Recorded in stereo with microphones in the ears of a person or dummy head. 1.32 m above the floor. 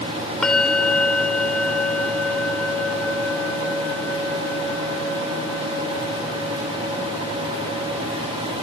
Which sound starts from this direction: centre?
A bell, at 0.4 s.